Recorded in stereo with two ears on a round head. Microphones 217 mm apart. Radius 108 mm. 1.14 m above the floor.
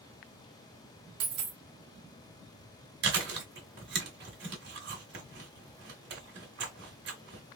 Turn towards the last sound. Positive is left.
turn(degrees=-50)  # may be behind; listen again after turning